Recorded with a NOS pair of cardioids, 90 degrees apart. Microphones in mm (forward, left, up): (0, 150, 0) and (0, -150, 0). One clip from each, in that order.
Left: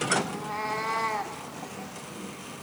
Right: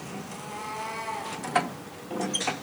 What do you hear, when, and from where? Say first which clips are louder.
0.3 s a cat meowing: left 5 dB; 55° left, 1.5 m